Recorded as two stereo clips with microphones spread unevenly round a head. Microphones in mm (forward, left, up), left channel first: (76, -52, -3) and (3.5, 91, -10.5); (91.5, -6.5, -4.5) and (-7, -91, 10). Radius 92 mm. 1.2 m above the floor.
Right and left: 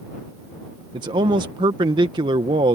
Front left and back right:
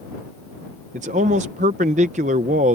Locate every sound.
0.9 s a man speaking: straight behind